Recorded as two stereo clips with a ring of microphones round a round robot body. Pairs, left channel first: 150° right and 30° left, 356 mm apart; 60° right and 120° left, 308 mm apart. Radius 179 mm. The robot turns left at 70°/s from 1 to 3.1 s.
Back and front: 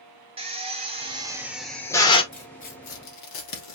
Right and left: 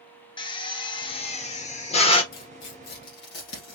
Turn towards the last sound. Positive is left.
turn(degrees=-115)